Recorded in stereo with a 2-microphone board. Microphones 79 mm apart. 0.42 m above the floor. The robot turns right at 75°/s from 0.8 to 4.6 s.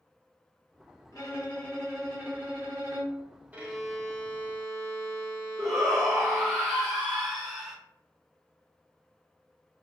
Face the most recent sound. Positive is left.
turn(degrees=0)  # may be behind; listen again after turning